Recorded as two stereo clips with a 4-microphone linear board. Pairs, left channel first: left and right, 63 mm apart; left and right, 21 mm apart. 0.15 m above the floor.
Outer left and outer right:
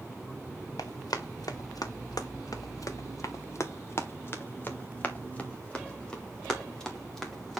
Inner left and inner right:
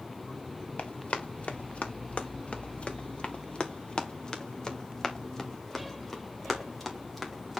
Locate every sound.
0.8 s running footsteps: 80° left, 1.7 m; by 7.6 s 5° left (ahead or behind), 3 m